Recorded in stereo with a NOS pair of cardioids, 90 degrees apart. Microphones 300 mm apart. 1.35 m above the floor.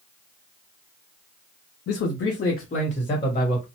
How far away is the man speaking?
About 0.6 m.